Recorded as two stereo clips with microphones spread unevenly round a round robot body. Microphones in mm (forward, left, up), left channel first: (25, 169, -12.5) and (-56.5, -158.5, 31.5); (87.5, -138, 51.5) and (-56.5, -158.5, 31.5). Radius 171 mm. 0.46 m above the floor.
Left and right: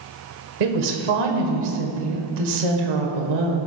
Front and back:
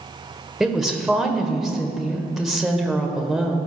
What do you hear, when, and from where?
0.6 s a woman speaking: 85° right, 1.6 m